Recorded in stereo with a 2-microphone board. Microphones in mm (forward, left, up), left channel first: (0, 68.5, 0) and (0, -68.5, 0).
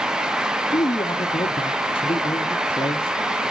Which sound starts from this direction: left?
A man speaking, at 0.7 s.